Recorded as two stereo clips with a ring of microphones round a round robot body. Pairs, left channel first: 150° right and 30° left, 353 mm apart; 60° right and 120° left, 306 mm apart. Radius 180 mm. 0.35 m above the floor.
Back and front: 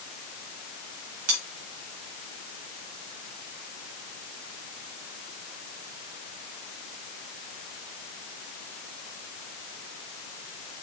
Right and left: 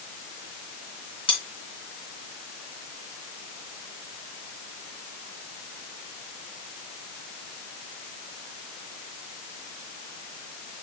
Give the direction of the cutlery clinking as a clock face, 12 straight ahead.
11 o'clock.